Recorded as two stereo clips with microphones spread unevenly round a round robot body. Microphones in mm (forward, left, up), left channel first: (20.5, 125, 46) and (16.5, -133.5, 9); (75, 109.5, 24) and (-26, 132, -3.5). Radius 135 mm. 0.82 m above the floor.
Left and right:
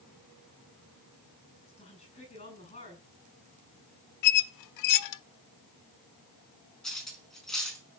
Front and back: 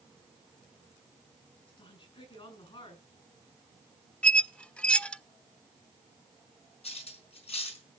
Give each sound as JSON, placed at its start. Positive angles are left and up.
{"t": 1.7, "sound": "a woman speaking", "azimuth_deg": 20, "distance_m": 8.0}
{"t": 4.2, "sound": "a squeak", "azimuth_deg": 70, "distance_m": 0.7}
{"t": 6.8, "sound": "cutlery clinking", "azimuth_deg": 0, "distance_m": 4.5}